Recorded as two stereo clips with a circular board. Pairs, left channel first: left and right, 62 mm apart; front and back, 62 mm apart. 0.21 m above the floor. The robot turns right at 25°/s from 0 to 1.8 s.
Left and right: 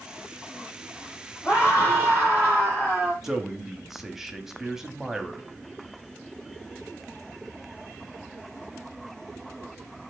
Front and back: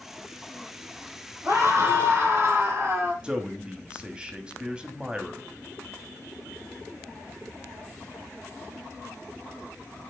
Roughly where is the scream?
Behind left.